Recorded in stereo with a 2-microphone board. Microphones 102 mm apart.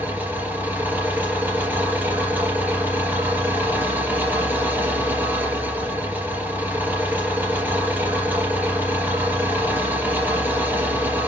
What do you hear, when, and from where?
0.0 s an engine running: 20° right (ahead or behind), 3.5 m